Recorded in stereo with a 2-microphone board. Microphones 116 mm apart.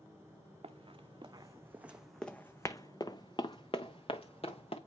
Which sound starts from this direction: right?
Running footsteps, at 0.6 s.